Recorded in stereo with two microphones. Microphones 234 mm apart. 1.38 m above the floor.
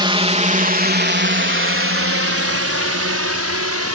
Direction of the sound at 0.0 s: 20° right (ahead or behind).